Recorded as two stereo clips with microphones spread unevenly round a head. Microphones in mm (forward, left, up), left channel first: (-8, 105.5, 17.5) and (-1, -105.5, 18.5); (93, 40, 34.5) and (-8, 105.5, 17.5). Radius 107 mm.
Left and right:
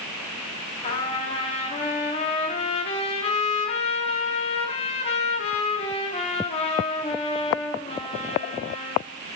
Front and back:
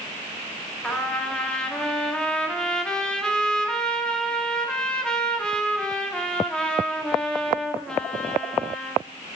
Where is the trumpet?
40° left, 1.1 m.